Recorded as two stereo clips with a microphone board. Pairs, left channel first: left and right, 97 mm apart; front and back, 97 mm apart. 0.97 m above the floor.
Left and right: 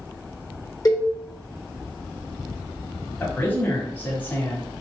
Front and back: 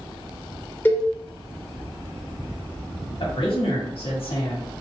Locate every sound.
0.8 s a cowbell: 60° left, 0.8 m
3.2 s a man speaking: 20° left, 1.2 m